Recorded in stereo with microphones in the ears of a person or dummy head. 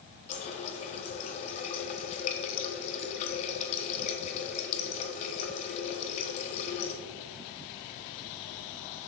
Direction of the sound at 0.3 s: 35° left (ahead or behind).